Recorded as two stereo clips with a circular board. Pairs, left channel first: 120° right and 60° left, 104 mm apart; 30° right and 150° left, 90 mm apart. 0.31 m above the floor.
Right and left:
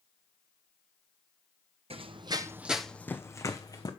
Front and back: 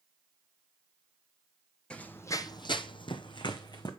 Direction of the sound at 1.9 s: 45° left.